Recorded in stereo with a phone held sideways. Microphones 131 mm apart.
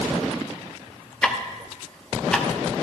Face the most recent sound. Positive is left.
turn(degrees=5)  # may be behind; listen again after turning